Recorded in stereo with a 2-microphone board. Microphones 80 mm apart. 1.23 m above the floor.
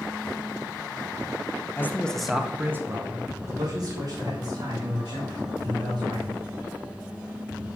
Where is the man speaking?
30° left (ahead or behind), 0.8 m; by 6.4 s 65° right (ahead or behind), 3.5 m.